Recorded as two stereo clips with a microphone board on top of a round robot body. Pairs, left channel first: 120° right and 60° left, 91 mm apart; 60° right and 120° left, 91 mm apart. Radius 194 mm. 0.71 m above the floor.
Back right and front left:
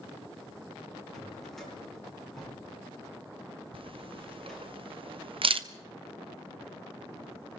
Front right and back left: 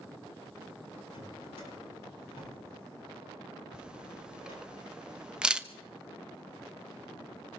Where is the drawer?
35° right, 10 m.